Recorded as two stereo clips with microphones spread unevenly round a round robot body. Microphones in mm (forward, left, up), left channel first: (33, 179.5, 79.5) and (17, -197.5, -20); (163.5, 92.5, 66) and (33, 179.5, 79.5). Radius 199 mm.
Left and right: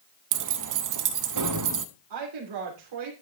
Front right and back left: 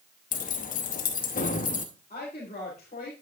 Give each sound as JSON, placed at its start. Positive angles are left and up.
{"t": 0.3, "sound": "keys jangling", "azimuth_deg": -65, "distance_m": 0.7}
{"t": 2.1, "sound": "a woman speaking", "azimuth_deg": -85, "distance_m": 3.0}